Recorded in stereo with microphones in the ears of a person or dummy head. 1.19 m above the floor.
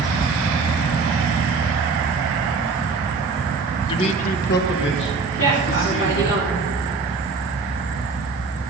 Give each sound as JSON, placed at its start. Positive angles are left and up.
{"t": 3.9, "sound": "a man speaking", "side_deg": 25, "distance_m": 1.0}
{"t": 5.4, "sound": "a woman speaking", "side_deg": 60, "distance_m": 3.5}